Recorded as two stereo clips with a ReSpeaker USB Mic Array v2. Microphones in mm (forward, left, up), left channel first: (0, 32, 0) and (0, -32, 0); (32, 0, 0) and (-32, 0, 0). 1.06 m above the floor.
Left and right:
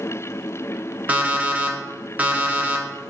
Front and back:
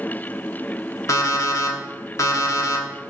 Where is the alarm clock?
25° right, 1.0 m.